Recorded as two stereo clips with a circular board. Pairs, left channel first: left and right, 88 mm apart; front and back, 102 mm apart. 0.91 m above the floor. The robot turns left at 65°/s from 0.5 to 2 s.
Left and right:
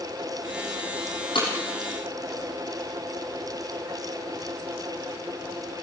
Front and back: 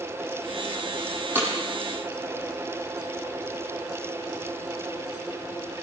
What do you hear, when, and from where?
1.4 s breaking glass: 110° left, 8 m; by 1.5 s 100° left, 8 m